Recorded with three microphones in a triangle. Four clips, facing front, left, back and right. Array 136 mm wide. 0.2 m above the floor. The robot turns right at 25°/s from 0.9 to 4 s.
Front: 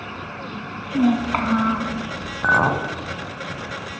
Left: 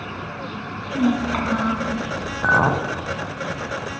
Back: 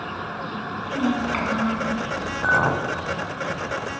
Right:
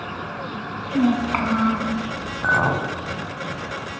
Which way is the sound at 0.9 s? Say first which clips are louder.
Right 1 dB, front 5 dB; 30° right.